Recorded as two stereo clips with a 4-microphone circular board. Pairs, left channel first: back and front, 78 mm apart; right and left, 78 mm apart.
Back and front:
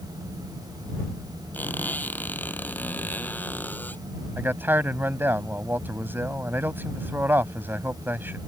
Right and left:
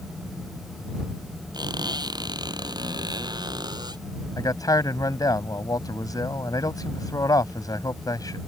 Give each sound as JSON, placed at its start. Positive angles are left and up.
{"t": 1.5, "sound": "a squeak", "azimuth_deg": 115}
{"t": 4.4, "sound": "a man speaking", "azimuth_deg": -60}